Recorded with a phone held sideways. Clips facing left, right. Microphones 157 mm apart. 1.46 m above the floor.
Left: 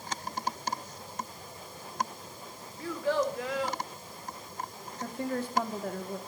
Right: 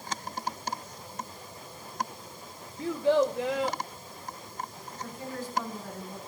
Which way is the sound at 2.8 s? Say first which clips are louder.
Right 5 dB; 25° right (ahead or behind).